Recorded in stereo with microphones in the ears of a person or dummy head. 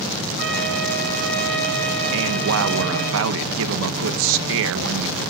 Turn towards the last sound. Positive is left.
turn(degrees=-75)  # may be behind; listen again after turning